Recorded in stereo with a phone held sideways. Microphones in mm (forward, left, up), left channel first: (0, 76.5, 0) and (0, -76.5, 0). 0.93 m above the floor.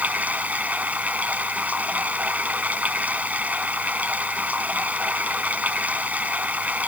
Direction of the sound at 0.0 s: 10° right (ahead or behind).